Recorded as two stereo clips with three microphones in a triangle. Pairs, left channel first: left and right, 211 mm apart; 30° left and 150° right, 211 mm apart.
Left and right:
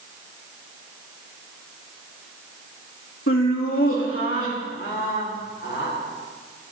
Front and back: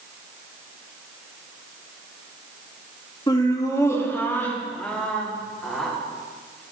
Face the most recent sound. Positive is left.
turn(degrees=120)